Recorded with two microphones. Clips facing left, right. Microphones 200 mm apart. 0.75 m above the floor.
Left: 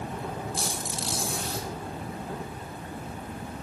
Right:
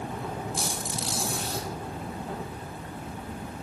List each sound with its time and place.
0.5 s a squeak: centre (ahead or behind), 4.5 m